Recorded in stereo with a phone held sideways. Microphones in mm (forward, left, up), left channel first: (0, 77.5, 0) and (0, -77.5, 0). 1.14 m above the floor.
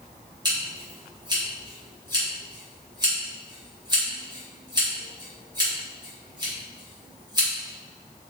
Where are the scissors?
25° right (ahead or behind), 1.3 m.